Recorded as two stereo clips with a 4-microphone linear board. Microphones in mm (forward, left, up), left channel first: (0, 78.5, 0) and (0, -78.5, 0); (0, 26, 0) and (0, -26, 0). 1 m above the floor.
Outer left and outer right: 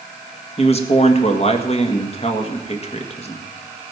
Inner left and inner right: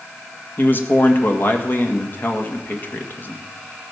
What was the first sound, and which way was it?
A man speaking, 40° left (ahead or behind).